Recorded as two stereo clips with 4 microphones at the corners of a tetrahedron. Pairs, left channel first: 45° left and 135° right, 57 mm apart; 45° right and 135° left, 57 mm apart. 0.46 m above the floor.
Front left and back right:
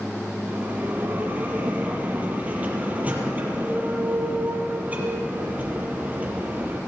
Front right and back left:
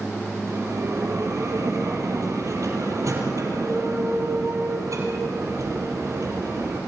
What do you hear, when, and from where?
0.5 s a bell: 160° left, 4.5 m